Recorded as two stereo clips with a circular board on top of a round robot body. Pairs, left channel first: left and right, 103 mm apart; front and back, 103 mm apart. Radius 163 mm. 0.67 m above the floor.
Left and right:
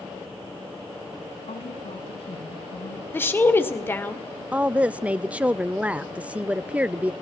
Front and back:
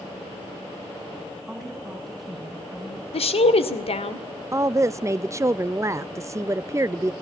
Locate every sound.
1.5 s a woman speaking: 90° left, 6 m
3.1 s a woman speaking: 20° left, 2.5 m
4.5 s a woman speaking: 155° right, 0.6 m